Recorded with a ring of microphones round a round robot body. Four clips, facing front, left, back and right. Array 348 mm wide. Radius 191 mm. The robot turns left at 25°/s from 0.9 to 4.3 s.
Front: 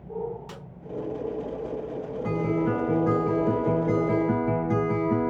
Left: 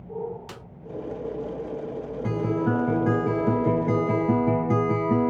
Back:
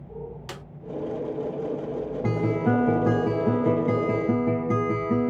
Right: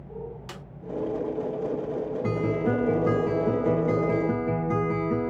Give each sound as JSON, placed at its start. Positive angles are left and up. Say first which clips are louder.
{"t": 0.5, "sound": "a snare drum", "louder": "even, back 3 dB", "azimuth_deg": 180, "distance_m": 0.9}
{"t": 2.2, "sound": "a guitar", "louder": "left 2 dB, back 1 dB", "azimuth_deg": -175, "distance_m": 1.8}